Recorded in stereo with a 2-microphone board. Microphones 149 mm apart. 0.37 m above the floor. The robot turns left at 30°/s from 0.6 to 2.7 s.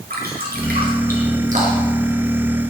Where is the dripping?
75° right (ahead or behind), 6 m; by 2.0 s 40° right (ahead or behind), 6 m.